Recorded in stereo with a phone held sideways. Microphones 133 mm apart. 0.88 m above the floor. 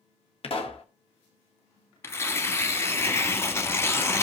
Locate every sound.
0.4 s a pop: 50° left (ahead or behind), 1.2 m
2.0 s tearing paper: 20° left (ahead or behind), 1.1 m